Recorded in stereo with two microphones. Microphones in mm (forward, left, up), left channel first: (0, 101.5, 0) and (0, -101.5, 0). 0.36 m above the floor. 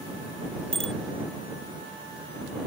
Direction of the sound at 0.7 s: 80° right.